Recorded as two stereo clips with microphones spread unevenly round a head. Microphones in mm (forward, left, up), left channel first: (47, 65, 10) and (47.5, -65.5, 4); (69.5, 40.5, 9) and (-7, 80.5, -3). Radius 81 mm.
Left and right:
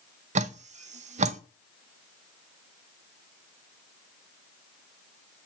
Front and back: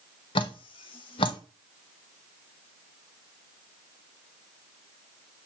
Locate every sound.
0.3 s dripping: 60° right, 0.6 m